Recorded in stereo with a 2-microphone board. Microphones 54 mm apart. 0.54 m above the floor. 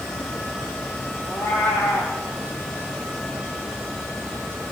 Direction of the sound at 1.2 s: 65° left (ahead or behind).